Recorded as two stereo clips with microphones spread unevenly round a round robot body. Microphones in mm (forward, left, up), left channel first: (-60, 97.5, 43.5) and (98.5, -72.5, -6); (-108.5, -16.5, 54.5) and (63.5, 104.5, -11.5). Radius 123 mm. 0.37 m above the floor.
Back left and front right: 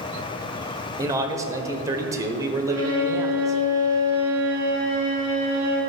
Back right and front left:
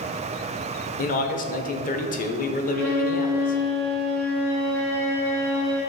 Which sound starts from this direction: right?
A man speaking, at 1.0 s.